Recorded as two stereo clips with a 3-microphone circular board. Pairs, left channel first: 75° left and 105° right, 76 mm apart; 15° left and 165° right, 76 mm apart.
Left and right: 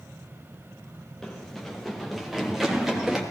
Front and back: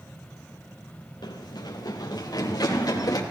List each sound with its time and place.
1.2 s running footsteps: 10° right, 2 m; by 3.2 s 20° right, 3.5 m